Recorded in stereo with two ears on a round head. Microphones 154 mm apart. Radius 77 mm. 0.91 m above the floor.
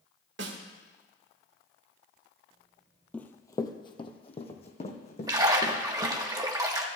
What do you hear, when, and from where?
0.4 s a snare drum: 75° right (ahead or behind), 2.0 m
3.1 s running footsteps: 5° left (ahead or behind), 0.9 m; by 6.2 s 45° left (ahead or behind), 3 m
5.3 s a splash: 20° right (ahead or behind), 1.4 m